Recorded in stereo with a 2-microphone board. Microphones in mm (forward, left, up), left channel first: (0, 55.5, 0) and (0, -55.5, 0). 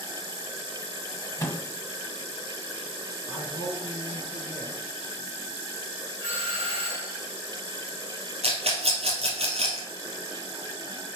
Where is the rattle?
70° right (ahead or behind), 3 m.